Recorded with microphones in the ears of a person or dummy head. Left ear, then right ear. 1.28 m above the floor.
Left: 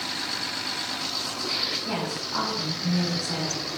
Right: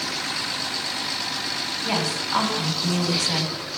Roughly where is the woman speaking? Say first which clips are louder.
Right 5 dB; right.